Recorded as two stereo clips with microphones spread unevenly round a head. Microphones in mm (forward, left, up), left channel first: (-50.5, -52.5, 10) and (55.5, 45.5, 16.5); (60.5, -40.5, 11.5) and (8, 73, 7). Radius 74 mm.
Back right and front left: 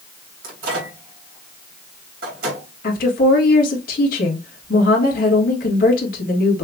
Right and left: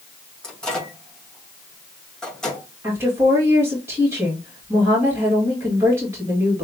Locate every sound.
0.4 s a microwave: 20° left, 2.5 m
2.8 s a woman speaking: 170° right, 1.9 m